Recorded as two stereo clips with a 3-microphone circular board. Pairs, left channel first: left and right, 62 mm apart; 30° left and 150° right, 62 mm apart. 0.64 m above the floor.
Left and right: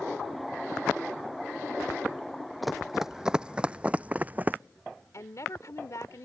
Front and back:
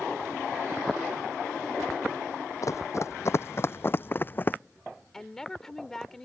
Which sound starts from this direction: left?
A woman speaking, at 5.1 s.